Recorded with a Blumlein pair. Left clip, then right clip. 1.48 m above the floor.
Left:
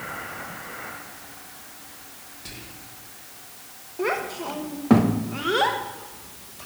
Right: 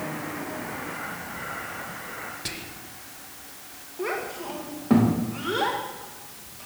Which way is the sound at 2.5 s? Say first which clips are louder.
Right 5 dB; 25° right.